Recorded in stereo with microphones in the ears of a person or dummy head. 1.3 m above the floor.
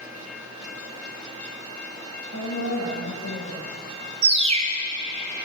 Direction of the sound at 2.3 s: 70° left (ahead or behind).